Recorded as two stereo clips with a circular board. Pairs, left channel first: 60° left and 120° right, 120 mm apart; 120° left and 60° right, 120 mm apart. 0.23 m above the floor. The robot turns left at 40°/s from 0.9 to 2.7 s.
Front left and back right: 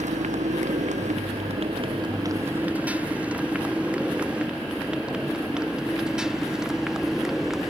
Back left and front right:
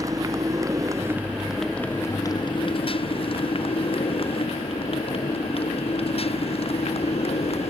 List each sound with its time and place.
0.0 s a motorcycle: 120° right; by 7.7 s 155° left